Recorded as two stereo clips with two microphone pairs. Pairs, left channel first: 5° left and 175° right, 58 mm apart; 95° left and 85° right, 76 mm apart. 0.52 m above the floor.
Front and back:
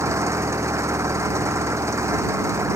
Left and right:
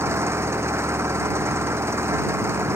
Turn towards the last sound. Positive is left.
turn(degrees=-140)